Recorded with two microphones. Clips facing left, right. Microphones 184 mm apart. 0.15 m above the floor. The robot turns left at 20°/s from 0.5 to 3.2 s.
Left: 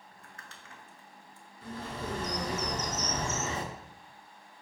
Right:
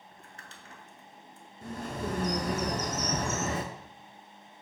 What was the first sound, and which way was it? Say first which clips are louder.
Crumpling: right 2 dB; 35° right (ahead or behind).